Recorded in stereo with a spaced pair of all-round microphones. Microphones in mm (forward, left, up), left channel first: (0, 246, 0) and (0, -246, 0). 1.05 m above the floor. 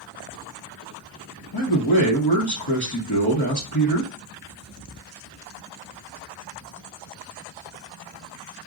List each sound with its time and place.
1.5 s a man speaking: 50° left (ahead or behind), 1.0 m